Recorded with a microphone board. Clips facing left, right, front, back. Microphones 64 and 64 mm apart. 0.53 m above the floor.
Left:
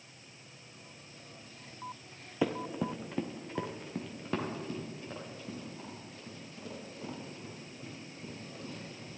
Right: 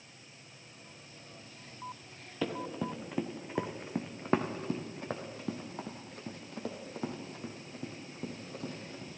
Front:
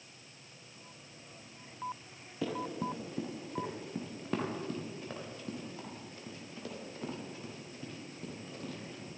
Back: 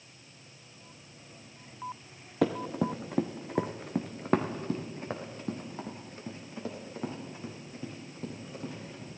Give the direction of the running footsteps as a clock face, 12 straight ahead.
7 o'clock.